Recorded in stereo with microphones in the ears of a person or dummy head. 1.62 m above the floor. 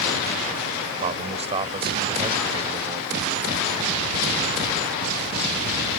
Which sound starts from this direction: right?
A man speaking, at 1.0 s.